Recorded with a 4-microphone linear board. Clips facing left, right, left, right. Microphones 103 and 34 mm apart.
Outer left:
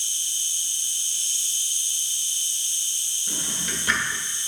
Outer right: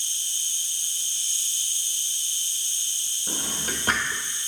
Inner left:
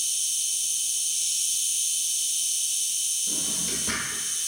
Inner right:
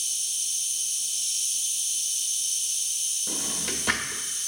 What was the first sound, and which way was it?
An insect, 65° left (ahead or behind).